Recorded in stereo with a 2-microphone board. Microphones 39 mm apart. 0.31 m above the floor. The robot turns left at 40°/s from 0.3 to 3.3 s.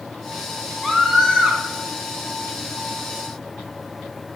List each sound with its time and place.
0.8 s a scream: 5° right, 3 m; by 1.6 s 40° right, 3 m